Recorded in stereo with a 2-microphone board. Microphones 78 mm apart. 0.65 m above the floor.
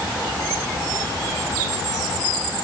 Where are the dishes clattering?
No dishes clattering in this recording.